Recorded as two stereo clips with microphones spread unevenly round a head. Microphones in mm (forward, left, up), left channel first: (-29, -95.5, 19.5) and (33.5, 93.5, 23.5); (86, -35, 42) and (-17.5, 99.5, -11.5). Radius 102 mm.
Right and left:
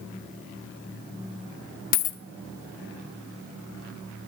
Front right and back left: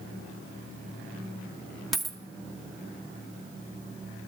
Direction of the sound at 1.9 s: 120° right.